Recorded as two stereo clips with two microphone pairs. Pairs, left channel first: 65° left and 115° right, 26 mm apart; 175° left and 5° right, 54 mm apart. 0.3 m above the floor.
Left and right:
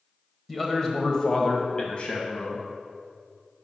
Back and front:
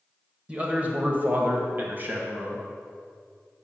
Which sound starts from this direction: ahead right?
A man speaking, at 0.5 s.